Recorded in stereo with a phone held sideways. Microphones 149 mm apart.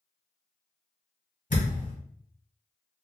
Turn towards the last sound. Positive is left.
turn(degrees=65)  # may be behind; listen again after turning